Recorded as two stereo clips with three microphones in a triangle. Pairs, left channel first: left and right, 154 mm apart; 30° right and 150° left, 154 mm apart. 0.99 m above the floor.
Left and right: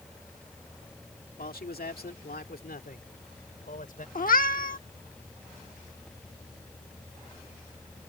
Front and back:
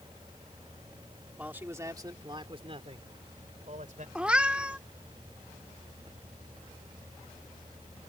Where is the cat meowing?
70° left.